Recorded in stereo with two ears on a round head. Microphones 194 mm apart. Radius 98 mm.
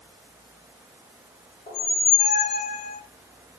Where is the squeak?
25° left (ahead or behind), 1.3 m.